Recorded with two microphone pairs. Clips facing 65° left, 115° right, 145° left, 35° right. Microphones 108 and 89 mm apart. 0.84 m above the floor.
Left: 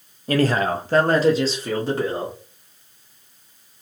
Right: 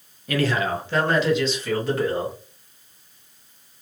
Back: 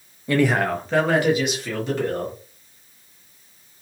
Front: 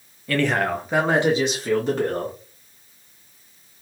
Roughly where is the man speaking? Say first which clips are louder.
Left 3 dB, back 2 dB; left.